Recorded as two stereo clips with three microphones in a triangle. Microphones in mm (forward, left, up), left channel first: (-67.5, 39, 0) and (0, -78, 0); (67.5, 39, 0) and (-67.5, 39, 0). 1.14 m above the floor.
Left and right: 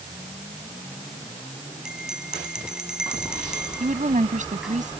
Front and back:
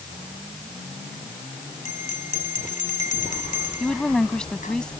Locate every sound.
1.9 s a bell: 25° left
3.8 s a woman speaking: 85° right